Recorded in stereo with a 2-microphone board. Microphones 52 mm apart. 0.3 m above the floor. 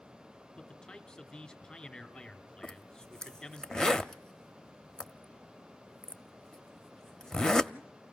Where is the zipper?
10° left (ahead or behind), 0.5 m.